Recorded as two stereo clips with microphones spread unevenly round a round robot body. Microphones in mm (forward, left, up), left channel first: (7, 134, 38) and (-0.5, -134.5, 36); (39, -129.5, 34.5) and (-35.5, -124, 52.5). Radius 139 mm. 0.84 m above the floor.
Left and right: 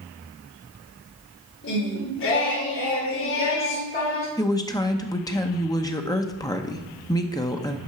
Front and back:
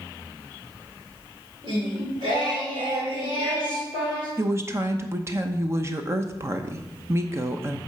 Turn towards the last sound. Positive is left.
turn(degrees=145)